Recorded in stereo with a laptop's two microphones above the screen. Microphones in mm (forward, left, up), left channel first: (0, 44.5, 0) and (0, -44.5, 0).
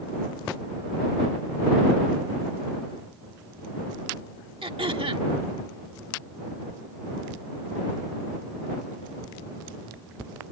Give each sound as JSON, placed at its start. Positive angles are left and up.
{"t": 4.6, "sound": "throat clearing", "side_deg": -80}